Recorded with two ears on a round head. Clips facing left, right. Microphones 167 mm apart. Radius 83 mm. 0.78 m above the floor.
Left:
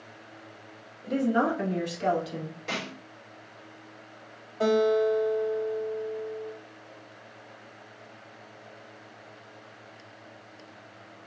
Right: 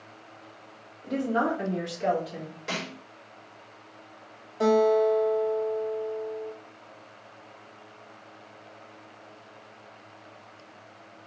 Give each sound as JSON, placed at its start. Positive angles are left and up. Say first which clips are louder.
{"t": 1.0, "sound": "a woman speaking", "louder": "left 2 dB", "side_deg": 20, "distance_m": 0.9}
{"t": 2.7, "sound": "a snare drum", "louder": "right 2 dB", "side_deg": -10, "distance_m": 1.4}
{"t": 4.6, "sound": "a guitar", "louder": "right 2 dB", "side_deg": -25, "distance_m": 1.3}